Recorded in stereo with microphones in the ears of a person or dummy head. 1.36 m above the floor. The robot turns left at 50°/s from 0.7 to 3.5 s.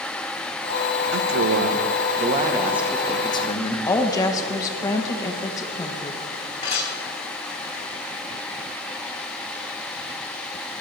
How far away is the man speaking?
About 1.2 m.